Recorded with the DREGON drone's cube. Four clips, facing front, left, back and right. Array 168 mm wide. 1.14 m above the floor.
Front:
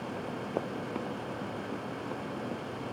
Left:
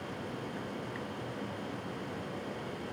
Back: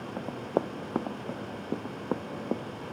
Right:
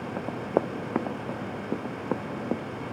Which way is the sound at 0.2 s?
115° right.